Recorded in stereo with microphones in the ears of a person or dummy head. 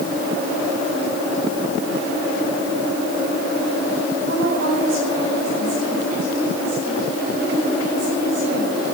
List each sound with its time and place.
4.3 s a woman speaking: 55° right (ahead or behind), 8 m